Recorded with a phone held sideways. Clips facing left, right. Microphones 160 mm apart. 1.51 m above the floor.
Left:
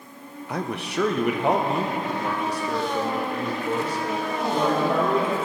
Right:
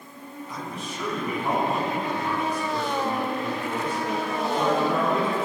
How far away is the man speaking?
About 0.6 m.